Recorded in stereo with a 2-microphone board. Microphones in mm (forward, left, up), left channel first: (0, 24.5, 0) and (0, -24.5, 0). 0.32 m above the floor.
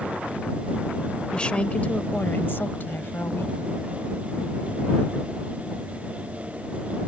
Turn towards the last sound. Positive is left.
turn(degrees=60)  # may be behind; listen again after turning